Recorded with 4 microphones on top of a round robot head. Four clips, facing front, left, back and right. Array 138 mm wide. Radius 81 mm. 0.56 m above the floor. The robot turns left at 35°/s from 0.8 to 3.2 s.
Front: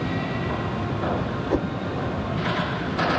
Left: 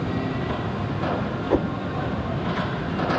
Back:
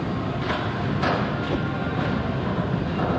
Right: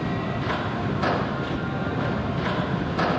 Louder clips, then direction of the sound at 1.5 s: Left 6 dB, front 2 dB; 70° left.